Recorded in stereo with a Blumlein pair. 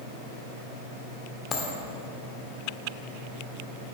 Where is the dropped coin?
20° left, 1.7 m.